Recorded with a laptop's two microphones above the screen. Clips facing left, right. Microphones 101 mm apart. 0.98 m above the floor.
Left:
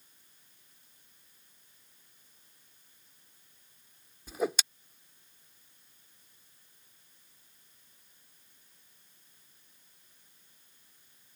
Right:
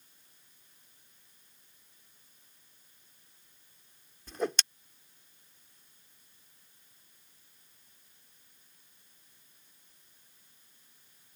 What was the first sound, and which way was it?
A whoosh, 10° left (ahead or behind).